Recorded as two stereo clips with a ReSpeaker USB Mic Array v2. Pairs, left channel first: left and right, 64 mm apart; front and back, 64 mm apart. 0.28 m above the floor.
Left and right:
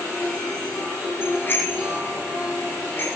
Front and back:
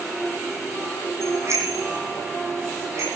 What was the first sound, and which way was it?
A bicycle bell, 140° left.